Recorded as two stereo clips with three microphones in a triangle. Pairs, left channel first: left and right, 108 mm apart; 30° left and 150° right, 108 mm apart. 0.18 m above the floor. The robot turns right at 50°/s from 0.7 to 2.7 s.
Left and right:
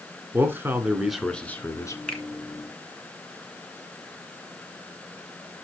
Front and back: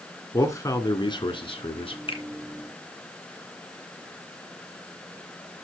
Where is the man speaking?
25° right, 2 m; by 2.0 s 40° left, 2 m.